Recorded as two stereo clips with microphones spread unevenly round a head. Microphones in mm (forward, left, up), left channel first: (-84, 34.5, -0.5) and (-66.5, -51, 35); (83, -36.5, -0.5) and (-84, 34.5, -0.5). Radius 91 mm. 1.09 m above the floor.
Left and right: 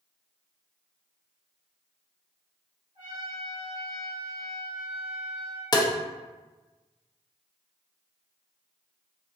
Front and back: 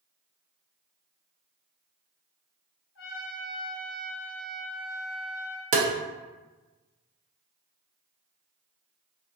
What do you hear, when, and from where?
3.0 s a trumpet: 30° right, 0.8 m
5.7 s tapping: 150° left, 0.5 m